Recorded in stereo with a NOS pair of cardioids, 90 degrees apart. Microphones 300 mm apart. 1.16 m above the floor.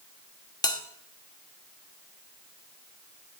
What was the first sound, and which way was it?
A bell, 15° left.